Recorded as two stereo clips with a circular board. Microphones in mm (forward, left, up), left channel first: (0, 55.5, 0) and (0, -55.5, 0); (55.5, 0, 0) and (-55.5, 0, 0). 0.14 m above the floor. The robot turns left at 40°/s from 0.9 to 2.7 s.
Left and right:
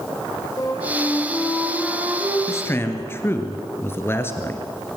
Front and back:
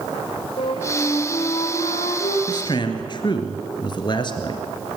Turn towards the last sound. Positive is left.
turn(degrees=30)